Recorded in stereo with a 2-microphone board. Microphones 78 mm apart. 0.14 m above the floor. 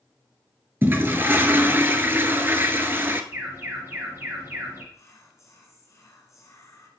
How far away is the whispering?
About 1.4 m.